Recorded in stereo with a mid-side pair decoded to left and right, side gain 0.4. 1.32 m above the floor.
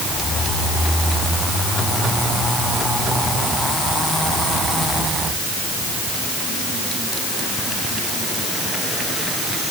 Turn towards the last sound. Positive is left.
No sound to turn to.